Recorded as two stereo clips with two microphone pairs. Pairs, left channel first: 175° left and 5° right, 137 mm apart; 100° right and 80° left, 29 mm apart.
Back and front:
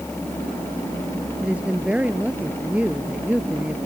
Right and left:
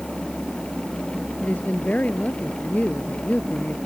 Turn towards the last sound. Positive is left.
turn(degrees=-85)